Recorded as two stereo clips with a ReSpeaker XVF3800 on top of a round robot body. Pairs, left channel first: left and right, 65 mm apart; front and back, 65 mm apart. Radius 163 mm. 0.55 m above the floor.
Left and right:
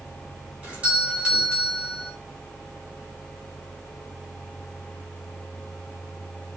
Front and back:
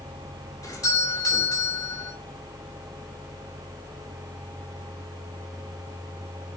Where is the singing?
No singing in this recording.